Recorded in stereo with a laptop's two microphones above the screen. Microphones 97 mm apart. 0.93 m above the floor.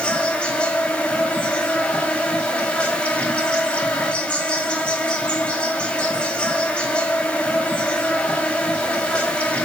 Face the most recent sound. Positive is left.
turn(degrees=10)  # may be behind; listen again after turning